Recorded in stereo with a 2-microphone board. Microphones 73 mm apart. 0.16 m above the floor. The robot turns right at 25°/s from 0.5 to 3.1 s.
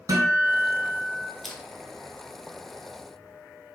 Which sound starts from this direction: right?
A guitar, at 0.1 s.